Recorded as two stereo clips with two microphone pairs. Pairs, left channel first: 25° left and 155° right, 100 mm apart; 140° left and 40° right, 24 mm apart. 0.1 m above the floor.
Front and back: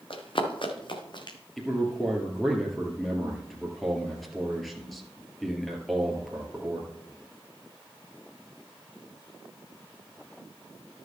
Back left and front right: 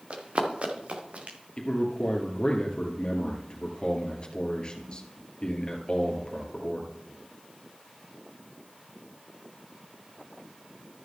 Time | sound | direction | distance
0.1 | running footsteps | straight ahead | 2.5 m
1.6 | a man speaking | 115° left | 2.5 m